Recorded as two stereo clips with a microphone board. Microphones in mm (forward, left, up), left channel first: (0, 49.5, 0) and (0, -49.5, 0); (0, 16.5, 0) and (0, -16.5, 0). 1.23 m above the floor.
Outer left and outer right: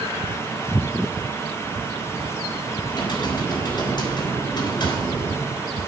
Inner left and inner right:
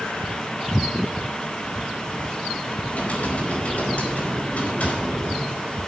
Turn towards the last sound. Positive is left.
turn(degrees=50)  # may be behind; listen again after turning